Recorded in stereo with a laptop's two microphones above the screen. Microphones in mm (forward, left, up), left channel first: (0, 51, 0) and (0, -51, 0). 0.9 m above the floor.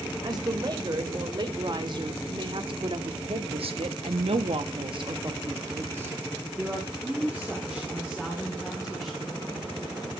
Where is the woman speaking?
40° right (ahead or behind), 3.5 m; by 9.3 s 10° left (ahead or behind), 3.5 m.